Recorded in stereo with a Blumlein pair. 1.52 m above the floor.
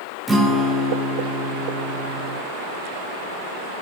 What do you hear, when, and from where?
0.3 s a guitar: 10° right, 1.3 m